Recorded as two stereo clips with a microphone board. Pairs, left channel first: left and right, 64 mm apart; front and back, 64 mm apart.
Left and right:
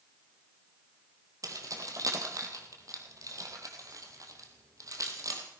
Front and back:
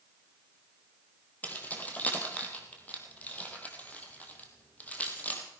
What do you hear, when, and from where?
1.4 s keys jangling: 65° right, 2.5 m